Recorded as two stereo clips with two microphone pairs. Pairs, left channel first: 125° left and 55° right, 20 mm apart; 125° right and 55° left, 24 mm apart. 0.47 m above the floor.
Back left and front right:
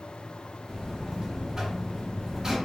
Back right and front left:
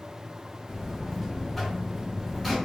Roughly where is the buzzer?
Ahead right.